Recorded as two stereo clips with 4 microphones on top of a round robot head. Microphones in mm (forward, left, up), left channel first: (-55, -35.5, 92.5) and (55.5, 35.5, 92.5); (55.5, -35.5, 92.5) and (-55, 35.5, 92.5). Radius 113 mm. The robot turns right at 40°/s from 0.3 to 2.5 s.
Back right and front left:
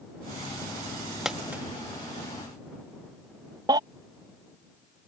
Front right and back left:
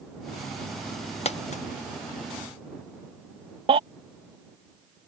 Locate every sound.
1.2 s a dropped coin: 50° right; by 1.6 s 35° right
3.7 s a baby crying: 95° left